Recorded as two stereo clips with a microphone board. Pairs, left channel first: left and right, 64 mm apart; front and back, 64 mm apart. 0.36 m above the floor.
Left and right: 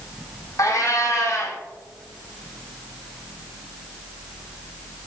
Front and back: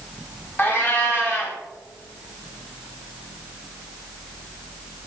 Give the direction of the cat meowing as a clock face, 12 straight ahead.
10 o'clock.